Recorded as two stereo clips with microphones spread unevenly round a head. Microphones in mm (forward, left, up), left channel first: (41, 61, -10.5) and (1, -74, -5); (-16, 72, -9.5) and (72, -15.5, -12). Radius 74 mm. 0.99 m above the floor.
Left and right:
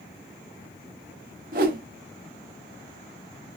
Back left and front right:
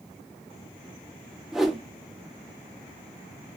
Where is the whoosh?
135° right, 0.7 m.